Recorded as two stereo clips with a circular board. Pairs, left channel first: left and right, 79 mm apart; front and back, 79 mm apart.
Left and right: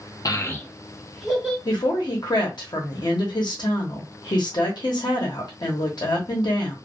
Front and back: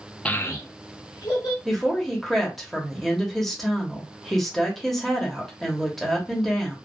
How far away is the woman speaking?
About 1.0 m.